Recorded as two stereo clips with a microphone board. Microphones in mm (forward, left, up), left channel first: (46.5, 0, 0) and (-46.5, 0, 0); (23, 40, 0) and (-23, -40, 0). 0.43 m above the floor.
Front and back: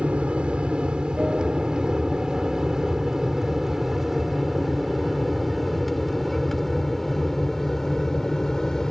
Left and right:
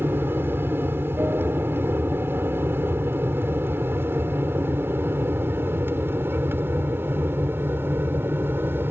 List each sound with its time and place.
0.0 s an aircraft: 120° right; by 8.9 s 80° right